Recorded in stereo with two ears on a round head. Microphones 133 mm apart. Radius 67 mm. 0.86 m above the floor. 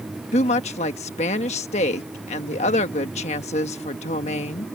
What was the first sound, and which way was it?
A woman speaking, 45° left (ahead or behind).